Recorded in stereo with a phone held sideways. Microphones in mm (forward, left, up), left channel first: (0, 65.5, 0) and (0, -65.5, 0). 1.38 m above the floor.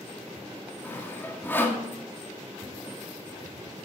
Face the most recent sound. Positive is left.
turn(degrees=15)  # may be behind; listen again after turning